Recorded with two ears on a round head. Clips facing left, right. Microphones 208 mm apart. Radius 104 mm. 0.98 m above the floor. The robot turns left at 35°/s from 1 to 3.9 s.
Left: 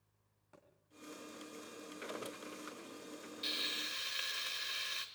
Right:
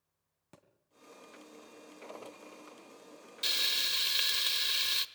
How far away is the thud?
About 2.5 m.